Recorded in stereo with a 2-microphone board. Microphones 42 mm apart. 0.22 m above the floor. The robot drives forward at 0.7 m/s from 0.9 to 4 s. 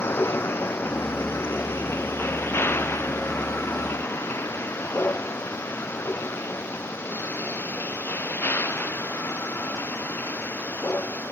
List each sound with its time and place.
0.0 s a vehicle: 80° left; by 11.3 s 75° left (ahead or behind)